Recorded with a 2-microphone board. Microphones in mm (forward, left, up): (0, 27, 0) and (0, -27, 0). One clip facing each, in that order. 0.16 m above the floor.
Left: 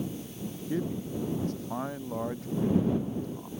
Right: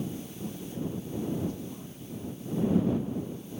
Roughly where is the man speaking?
Left.